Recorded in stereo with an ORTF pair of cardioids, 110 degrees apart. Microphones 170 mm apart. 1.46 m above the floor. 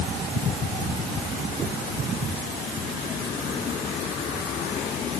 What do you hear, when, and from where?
Only background noise.